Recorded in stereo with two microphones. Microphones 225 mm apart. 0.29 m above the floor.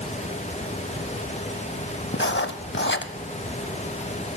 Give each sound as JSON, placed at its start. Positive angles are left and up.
{"t": 2.1, "sound": "writing", "side_deg": 55, "distance_m": 0.5}